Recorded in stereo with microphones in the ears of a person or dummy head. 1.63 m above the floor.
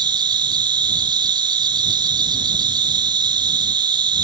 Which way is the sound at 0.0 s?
15° right (ahead or behind).